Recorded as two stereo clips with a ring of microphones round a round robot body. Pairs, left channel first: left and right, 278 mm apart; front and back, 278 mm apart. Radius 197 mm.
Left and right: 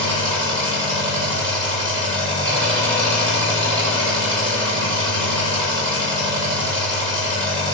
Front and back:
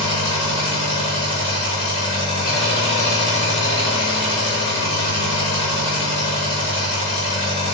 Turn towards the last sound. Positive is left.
turn(degrees=-20)